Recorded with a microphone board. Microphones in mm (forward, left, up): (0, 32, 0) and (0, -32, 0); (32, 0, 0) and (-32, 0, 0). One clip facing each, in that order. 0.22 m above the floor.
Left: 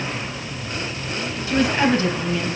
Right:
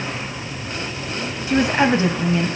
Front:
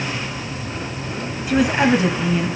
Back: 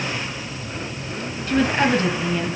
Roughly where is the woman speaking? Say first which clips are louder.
Right 2 dB, front 2 dB; right.